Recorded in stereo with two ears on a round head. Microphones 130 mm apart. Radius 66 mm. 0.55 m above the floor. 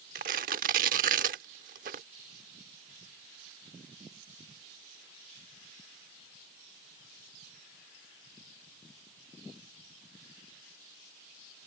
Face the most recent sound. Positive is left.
turn(degrees=-60)  # may be behind; listen again after turning